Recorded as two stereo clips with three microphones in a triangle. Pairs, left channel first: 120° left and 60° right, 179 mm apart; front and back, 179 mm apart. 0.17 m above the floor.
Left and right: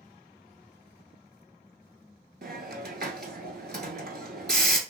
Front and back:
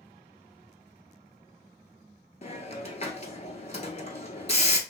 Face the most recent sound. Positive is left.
turn(degrees=-45)